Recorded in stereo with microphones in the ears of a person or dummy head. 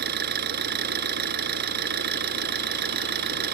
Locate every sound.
0.0 s an engine running: 65° right (ahead or behind)